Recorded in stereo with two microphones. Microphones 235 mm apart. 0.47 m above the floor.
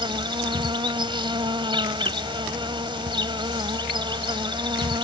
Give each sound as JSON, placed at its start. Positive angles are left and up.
{"t": 0.0, "sound": "an insect", "side_deg": -20}